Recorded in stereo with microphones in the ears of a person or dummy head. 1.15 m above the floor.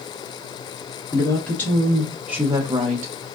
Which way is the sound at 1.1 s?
15° left (ahead or behind).